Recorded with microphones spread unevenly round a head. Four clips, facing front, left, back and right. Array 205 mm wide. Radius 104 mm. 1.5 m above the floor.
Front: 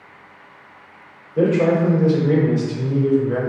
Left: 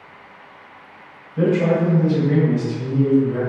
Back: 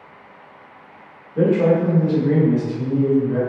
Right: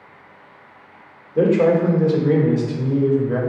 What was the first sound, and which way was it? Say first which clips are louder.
A man speaking: right 3 dB, even; 90° right.